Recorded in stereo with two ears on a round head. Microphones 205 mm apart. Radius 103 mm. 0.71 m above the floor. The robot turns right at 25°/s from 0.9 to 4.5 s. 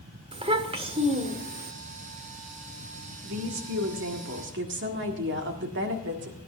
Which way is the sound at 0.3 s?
25° right (ahead or behind).